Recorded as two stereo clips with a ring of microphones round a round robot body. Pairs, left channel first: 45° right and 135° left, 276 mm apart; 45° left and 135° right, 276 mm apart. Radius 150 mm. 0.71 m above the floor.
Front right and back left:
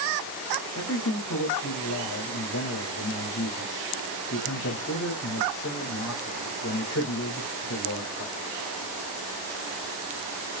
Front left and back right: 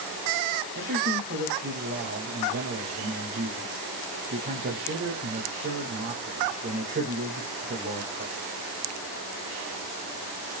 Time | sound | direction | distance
0.8 | a man speaking | 85° right | 5 m